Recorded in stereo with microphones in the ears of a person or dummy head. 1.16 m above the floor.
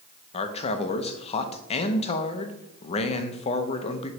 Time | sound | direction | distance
0.3 | a man speaking | 35° left (ahead or behind) | 0.6 m